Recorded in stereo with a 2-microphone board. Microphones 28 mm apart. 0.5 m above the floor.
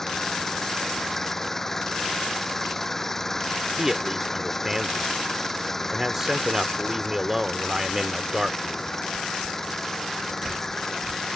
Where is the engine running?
15° left (ahead or behind).